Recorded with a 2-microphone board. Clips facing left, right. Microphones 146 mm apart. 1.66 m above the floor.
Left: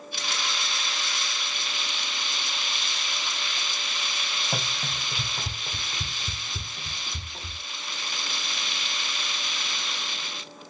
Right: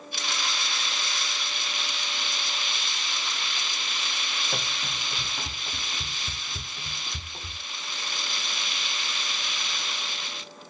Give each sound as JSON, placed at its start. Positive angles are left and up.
{"t": 4.5, "sound": "running footsteps", "side_deg": 20, "distance_m": 2.0}